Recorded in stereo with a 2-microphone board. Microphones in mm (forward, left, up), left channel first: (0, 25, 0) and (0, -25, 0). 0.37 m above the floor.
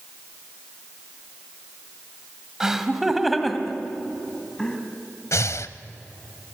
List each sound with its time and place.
2.6 s laughter: 10° right (ahead or behind), 2 m; by 4.8 s 15° left (ahead or behind), 3 m
5.3 s breathing: 70° left (ahead or behind), 0.7 m